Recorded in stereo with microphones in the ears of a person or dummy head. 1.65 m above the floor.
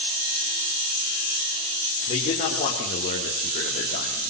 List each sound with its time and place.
2.1 s a man speaking: 35° left (ahead or behind), 5.5 m; by 4.3 s 50° left (ahead or behind), 4 m